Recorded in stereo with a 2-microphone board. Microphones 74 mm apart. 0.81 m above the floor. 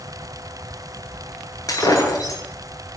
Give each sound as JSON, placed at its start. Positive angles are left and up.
{"t": 1.7, "sound": "breaking glass", "side_deg": 50, "distance_m": 9.0}